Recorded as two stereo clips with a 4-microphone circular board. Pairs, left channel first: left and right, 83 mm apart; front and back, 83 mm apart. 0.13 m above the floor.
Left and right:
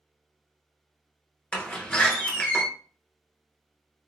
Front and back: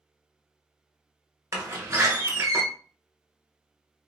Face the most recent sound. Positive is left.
turn(degrees=155)